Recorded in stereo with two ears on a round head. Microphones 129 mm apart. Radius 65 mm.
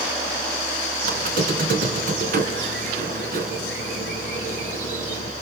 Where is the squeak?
65° right (ahead or behind), 3 m.